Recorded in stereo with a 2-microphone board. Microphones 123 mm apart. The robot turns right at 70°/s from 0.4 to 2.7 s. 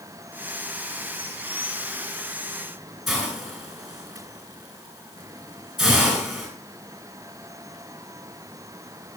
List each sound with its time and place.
3.1 s a hiss: centre (ahead or behind), 9.5 m